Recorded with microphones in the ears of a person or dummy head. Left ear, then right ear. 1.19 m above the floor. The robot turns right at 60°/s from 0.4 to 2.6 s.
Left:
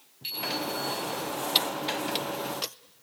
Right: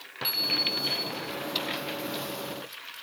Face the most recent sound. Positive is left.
turn(degrees=80)